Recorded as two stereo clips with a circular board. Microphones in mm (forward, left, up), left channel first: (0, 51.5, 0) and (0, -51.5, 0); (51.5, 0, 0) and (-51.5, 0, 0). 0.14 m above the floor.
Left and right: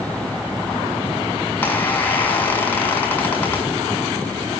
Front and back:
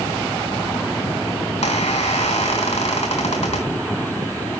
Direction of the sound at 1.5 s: 15° left.